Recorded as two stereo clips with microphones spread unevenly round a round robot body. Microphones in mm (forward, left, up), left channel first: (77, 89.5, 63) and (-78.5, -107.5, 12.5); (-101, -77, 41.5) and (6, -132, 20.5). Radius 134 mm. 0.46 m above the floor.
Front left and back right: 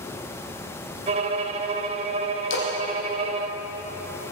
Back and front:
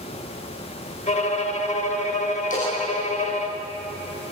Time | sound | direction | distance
1.1 | a violin | 175° left | 1.7 m
2.5 | a splash | 95° left | 6 m